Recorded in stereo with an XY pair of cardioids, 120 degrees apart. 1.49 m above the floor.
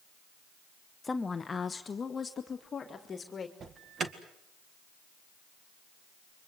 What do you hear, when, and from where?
1.0 s a woman speaking: 20° left, 1.1 m; by 3.5 s 30° left, 2.5 m
3.6 s an alarm: 40° right, 2 m